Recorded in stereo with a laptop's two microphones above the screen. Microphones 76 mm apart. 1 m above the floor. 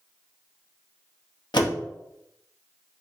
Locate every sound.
1.5 s a door slam: 75° left (ahead or behind), 0.8 m